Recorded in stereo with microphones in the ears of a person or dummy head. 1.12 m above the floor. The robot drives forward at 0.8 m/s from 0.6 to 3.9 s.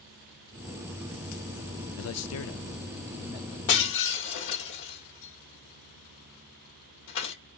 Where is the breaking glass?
60° left (ahead or behind), 1.5 m; by 7.3 s 65° left (ahead or behind), 1.5 m.